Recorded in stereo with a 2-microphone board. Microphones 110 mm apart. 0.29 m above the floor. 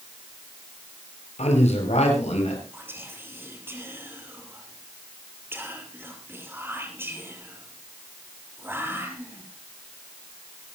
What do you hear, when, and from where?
1.4 s a man speaking: 75° left (ahead or behind), 6 m
2.7 s whispering: 20° right (ahead or behind), 5.5 m